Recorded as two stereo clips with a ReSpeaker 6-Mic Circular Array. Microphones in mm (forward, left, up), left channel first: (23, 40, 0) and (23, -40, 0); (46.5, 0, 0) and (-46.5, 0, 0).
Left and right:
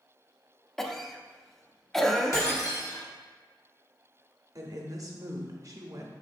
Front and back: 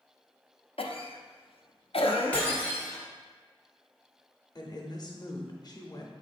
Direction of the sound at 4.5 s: 45° right.